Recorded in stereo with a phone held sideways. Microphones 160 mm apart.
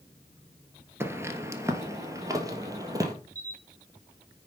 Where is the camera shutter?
50° right (ahead or behind), 2.5 m.